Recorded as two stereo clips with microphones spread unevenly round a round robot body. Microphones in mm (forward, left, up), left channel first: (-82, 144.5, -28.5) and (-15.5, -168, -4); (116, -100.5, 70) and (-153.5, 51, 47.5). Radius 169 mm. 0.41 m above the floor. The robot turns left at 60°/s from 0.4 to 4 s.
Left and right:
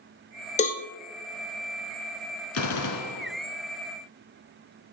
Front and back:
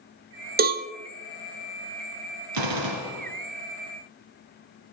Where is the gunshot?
145° left, 1.4 m; by 3.3 s 100° left, 1.4 m.